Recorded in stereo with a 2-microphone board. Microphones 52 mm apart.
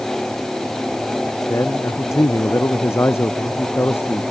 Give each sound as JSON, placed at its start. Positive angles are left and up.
{"t": 1.5, "sound": "a man speaking", "side_deg": 70}